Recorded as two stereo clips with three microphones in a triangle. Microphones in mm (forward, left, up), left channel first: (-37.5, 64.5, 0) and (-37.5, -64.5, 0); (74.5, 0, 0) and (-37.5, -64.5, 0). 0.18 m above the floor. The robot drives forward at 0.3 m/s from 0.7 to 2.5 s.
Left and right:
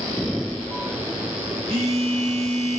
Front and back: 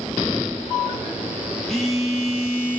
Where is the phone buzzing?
55° right, 0.9 m; by 2.8 s 75° right, 0.8 m.